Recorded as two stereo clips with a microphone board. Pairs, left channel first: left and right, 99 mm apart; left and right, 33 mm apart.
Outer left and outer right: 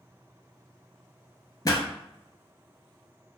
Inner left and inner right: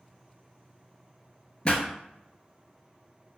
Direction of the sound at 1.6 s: 40° left (ahead or behind).